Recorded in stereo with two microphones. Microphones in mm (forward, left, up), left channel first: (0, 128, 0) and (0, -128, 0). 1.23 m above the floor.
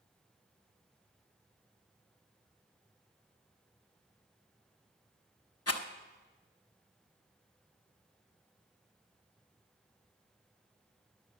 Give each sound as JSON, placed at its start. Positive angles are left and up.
{"t": 5.7, "sound": "a rattle", "side_deg": 70, "distance_m": 0.7}